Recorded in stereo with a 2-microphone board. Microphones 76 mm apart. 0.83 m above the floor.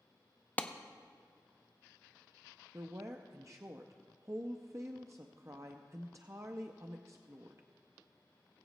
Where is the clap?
20° left (ahead or behind), 0.5 m.